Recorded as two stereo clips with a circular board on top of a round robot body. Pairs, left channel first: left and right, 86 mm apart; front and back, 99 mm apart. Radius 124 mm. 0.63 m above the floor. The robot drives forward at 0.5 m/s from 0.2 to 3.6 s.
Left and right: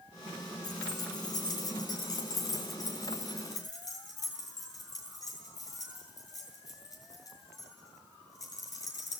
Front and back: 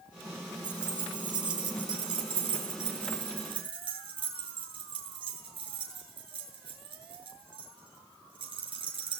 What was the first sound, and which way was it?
Keys jangling, 135° left.